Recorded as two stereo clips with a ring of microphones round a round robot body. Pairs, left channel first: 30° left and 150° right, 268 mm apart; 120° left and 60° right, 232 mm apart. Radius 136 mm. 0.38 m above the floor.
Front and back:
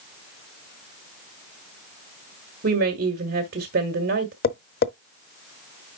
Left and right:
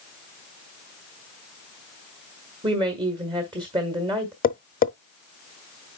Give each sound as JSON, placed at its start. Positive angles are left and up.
{"t": 2.6, "sound": "a woman speaking", "azimuth_deg": -120, "distance_m": 1.5}
{"t": 4.4, "sound": "tapping", "azimuth_deg": 75, "distance_m": 0.8}